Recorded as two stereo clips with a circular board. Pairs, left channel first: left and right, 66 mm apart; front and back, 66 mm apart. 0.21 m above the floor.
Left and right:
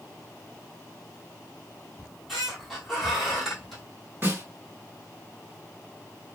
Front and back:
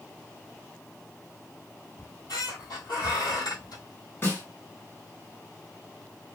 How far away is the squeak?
About 1.4 m.